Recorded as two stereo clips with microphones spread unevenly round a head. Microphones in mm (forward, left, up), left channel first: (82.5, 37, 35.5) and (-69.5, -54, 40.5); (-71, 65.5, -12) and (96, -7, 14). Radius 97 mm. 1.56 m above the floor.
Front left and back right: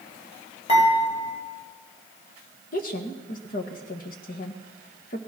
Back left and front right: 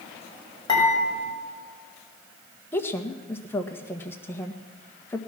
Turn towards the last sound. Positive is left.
turn(degrees=75)